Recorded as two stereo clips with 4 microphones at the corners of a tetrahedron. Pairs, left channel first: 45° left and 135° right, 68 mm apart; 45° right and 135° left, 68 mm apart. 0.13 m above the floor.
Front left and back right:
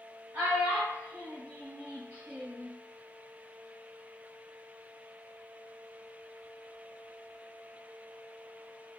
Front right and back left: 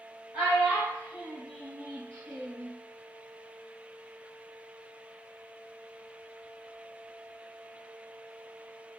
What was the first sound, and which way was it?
A child speaking, 170° left.